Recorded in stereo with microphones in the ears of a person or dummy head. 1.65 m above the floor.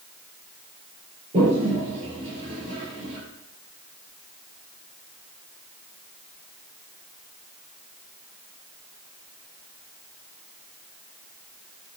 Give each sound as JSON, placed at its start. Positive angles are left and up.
{"t": 1.3, "sound": "a toilet flushing", "side_deg": -40, "distance_m": 5.0}